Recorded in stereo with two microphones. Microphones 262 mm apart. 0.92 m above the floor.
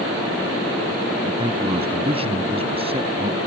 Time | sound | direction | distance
1.2 | a man speaking | 20° right (ahead or behind) | ?